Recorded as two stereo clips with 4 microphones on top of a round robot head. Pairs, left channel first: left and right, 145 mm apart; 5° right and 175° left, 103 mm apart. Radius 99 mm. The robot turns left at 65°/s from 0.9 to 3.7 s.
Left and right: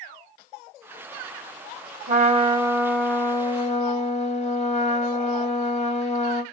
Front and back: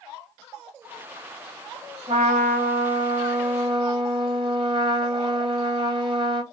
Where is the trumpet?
120° right, 0.9 m; by 6.4 s 135° left, 0.9 m.